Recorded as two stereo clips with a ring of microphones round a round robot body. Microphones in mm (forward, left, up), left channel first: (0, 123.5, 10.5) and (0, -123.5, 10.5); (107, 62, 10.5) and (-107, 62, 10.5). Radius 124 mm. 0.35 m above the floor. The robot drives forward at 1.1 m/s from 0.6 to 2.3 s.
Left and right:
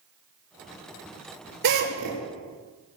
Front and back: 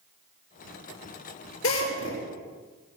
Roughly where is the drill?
Ahead right.